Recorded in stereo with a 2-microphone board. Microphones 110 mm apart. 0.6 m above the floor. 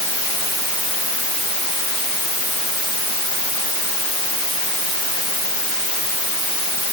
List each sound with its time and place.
Only background noise.